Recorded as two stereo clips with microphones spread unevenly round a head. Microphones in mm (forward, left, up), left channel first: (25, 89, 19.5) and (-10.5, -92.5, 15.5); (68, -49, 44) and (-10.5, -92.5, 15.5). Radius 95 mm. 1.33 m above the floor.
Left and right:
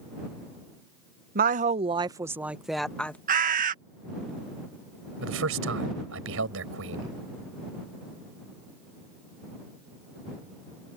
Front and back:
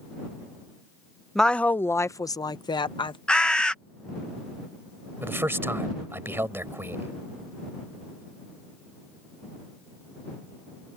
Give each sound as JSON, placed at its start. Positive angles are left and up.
{"t": 1.4, "sound": "a woman speaking", "azimuth_deg": -60}
{"t": 3.3, "sound": "a bird", "azimuth_deg": -55}
{"t": 5.2, "sound": "a man speaking", "azimuth_deg": -85}